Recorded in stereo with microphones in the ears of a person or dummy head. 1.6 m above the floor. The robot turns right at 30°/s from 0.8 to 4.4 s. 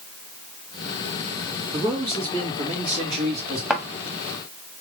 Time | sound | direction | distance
1.7 | a man speaking | 170° right | 2.5 m
3.7 | a thud | 5° right (ahead or behind) | 1.1 m